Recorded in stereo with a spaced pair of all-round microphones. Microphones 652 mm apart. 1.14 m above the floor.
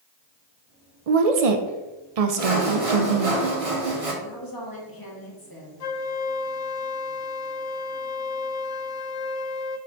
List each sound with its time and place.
1.1 s a woman speaking: 65° right (ahead or behind), 0.6 m
2.4 s sawing: 55° right (ahead or behind), 1.2 m
4.2 s a woman speaking: 30° left (ahead or behind), 2 m
5.8 s a flute: 65° left (ahead or behind), 0.6 m